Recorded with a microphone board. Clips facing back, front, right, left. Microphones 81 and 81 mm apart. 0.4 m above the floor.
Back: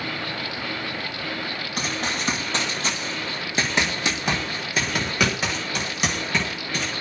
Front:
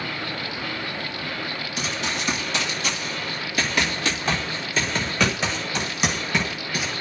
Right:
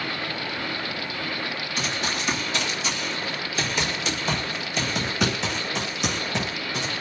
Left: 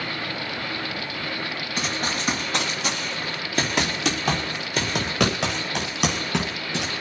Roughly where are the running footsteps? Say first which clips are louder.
Back 1 dB, left 2 dB; behind left.